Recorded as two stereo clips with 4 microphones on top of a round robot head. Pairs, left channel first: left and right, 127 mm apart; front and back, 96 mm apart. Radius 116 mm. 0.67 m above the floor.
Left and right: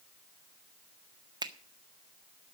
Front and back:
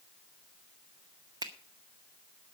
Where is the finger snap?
140° right, 1.7 m.